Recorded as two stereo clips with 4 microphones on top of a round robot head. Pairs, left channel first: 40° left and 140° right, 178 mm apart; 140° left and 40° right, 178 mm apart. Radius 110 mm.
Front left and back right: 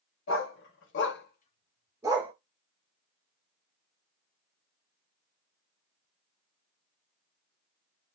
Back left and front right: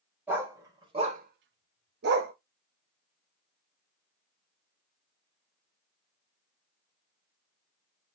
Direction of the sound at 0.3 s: 40° left.